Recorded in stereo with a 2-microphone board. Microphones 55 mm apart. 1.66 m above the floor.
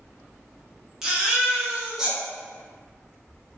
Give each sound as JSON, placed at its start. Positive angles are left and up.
{"t": 1.0, "sound": "a baby crying", "side_deg": -10, "distance_m": 0.8}